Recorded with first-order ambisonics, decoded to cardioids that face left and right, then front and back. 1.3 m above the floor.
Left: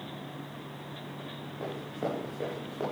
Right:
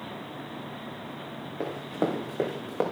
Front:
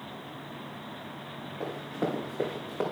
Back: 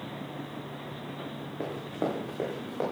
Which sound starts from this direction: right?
Running footsteps, at 1.6 s.